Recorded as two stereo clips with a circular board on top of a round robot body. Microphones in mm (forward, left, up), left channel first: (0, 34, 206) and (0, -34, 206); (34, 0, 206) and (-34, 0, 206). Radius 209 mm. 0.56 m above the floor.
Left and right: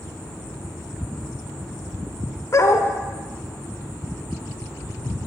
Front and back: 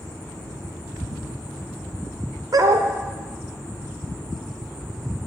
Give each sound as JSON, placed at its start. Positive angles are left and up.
{"t": 2.5, "sound": "a dog barking", "azimuth_deg": 140, "distance_m": 1.0}